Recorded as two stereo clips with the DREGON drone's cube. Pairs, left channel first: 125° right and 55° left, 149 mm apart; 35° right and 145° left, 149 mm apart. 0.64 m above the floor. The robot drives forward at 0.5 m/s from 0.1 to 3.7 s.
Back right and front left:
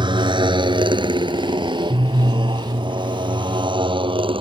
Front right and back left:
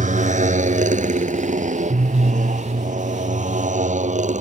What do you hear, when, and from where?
0.0 s a motorcycle: 115° left; by 4.4 s 110° left